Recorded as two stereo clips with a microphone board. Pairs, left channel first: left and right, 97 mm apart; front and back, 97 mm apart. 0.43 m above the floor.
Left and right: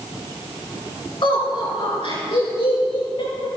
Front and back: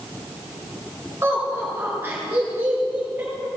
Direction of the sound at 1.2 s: 115° left.